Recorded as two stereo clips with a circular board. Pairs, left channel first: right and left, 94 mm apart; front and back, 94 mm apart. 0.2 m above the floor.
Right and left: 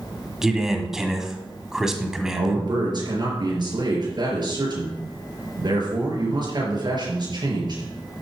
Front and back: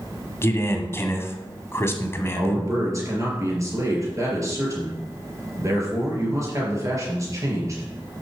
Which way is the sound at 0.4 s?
10° left.